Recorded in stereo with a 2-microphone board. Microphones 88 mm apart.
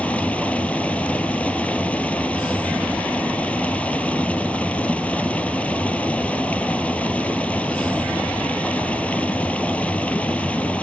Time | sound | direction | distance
0.0 | running water | 15° left (ahead or behind) | 1.4 m